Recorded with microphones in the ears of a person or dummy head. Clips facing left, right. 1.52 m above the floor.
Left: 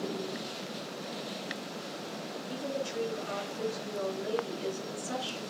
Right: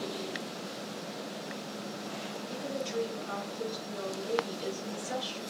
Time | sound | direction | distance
2.5 | a woman speaking | 60° left (ahead or behind) | 5.5 m